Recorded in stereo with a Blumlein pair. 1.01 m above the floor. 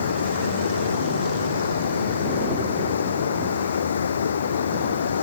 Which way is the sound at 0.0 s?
65° left.